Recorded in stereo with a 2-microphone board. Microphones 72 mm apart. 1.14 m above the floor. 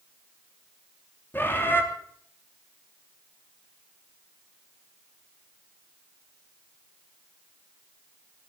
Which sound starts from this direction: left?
A bird, at 1.3 s.